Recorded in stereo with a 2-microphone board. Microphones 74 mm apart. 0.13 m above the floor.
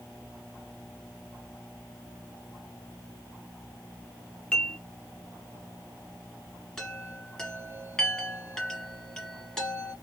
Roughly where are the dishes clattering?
Centre.